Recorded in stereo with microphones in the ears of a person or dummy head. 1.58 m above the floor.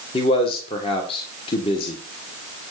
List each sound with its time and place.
0.1 s a man speaking: 35° left (ahead or behind), 1.7 m